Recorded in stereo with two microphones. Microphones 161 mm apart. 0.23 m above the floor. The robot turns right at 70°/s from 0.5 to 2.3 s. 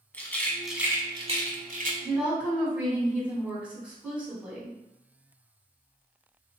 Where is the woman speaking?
10° left (ahead or behind), 1.8 m; by 4.8 s 5° right (ahead or behind), 1.8 m.